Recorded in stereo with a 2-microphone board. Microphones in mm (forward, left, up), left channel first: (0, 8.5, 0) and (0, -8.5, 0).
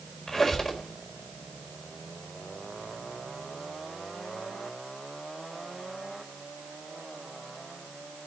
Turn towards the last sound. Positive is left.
turn(degrees=25)  # may be behind; listen again after turning